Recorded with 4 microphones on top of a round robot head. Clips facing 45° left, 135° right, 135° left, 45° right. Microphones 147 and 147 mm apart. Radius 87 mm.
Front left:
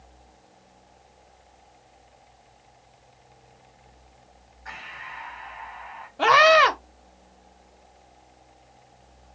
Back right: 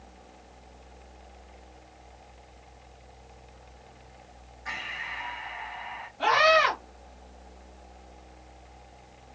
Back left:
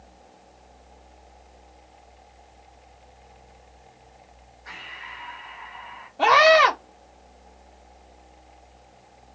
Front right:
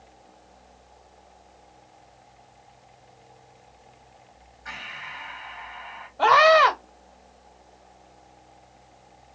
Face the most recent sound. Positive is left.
turn(degrees=65)